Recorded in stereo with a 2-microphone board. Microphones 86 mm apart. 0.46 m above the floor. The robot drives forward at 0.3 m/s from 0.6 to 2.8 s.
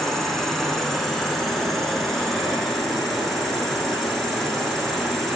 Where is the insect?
5° left (ahead or behind), 1.4 m; by 5.4 s centre (ahead or behind), 2 m.